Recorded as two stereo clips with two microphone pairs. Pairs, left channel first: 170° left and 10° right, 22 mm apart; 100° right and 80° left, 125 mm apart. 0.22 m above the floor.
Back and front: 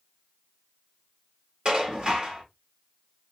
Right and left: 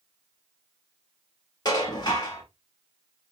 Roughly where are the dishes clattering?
Ahead right.